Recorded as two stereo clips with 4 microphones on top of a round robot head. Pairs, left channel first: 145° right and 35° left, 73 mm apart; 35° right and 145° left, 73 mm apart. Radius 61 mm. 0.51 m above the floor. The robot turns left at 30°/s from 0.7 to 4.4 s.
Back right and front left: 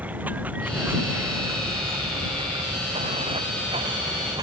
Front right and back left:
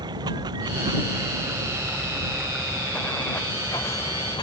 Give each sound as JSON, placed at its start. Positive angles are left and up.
{"t": 0.0, "sound": "running water", "azimuth_deg": 110}